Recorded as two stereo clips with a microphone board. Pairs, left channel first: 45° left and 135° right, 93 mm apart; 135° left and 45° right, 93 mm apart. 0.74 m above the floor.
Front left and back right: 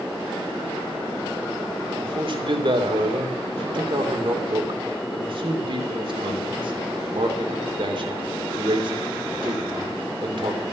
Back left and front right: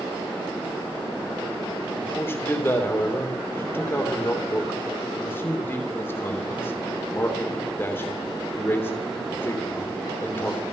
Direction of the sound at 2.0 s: 160° right.